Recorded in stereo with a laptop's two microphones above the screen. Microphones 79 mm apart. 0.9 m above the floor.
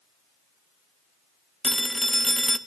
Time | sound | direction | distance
1.6 | a phone ringing | centre (ahead or behind) | 0.9 m